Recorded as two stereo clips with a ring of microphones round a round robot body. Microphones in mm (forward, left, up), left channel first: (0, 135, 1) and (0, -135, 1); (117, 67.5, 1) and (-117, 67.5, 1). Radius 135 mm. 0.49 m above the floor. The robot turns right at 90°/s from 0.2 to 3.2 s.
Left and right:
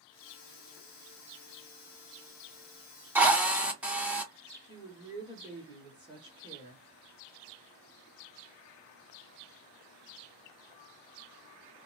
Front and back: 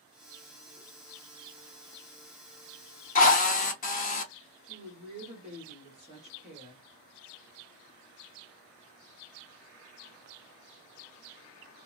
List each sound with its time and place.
3.1 s a drill: 15° right, 0.7 m; by 4.3 s 10° right, 0.7 m
4.6 s a woman speaking: 150° right, 1.3 m